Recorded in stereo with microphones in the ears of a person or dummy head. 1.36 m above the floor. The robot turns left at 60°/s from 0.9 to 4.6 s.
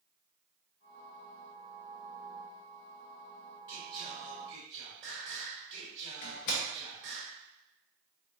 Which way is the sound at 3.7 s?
10° left (ahead or behind).